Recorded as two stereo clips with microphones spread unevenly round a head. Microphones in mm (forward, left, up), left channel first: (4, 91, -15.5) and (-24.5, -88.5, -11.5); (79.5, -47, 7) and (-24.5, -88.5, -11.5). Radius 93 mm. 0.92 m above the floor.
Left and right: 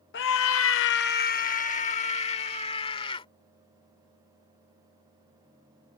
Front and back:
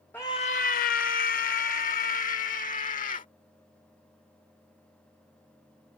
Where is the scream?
105° left; by 3.3 s 15° left.